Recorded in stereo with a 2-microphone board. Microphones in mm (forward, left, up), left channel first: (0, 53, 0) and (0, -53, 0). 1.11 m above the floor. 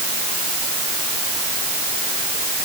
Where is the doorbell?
No doorbell in this recording.